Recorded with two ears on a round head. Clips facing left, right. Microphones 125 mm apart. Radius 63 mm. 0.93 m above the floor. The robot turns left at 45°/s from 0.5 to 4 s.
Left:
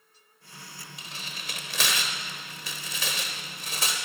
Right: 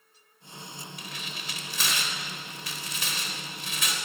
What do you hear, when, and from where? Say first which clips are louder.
1.0 s tearing paper: right 2 dB; 20° left (ahead or behind), 3.5 m; by 4.0 s 25° left (ahead or behind), 3.5 m